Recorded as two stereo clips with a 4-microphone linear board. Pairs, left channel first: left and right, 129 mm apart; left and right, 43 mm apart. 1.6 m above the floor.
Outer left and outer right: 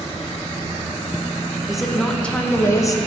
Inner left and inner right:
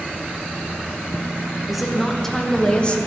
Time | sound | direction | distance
1.7 | a woman speaking | centre (ahead or behind) | 1.4 m